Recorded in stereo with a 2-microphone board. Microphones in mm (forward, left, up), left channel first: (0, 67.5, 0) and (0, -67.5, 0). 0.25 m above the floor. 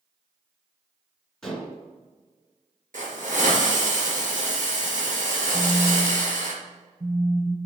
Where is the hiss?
70° right (ahead or behind), 3 m.